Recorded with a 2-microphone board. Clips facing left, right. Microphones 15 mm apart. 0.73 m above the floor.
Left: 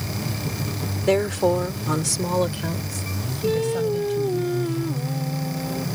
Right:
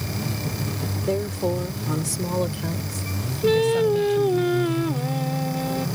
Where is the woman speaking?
75° left (ahead or behind); by 4.4 s 5° left (ahead or behind).